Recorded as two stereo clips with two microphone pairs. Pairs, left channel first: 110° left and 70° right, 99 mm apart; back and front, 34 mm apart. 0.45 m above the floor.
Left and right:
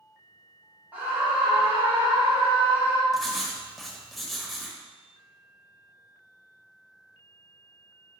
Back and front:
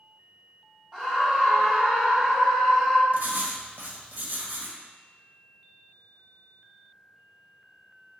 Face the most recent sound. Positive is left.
turn(degrees=20)